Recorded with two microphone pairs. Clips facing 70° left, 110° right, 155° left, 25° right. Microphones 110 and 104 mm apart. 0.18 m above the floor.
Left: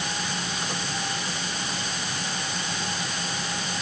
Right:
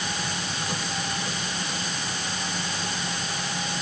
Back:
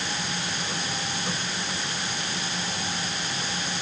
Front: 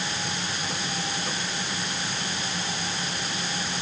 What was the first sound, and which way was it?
Only background noise.